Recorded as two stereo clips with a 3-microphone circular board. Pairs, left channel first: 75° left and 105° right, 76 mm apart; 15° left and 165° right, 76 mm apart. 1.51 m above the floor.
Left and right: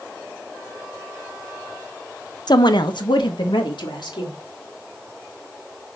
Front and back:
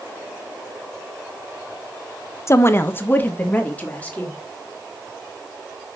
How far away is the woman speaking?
About 0.8 m.